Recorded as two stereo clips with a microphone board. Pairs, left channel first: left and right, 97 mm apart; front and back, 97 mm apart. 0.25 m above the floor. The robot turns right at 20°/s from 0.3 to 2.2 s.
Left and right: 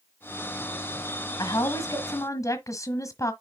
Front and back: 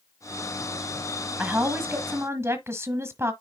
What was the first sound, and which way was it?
A woman speaking, 115° left.